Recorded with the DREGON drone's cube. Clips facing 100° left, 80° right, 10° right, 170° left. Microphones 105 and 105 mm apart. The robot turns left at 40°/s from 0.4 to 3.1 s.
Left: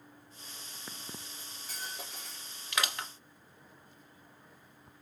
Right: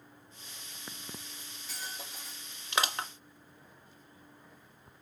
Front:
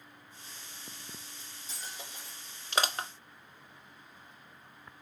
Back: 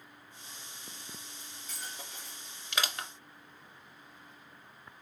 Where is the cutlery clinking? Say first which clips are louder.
Left 1 dB, back 1 dB; 155° left, 2 m; by 2.6 s 105° left, 2 m.